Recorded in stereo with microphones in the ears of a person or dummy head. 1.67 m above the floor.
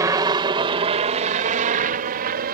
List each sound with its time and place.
0.0 s a helicopter: 15° right (ahead or behind); by 2.5 s 45° right (ahead or behind)